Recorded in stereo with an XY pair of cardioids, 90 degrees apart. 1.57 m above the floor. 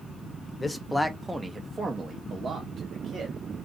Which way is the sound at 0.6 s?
25° left.